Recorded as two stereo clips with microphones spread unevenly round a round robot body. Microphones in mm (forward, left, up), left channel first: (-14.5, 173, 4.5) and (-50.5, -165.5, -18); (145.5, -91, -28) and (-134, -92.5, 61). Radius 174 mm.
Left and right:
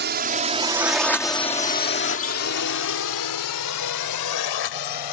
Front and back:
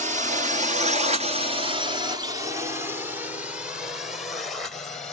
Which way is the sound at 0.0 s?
105° right.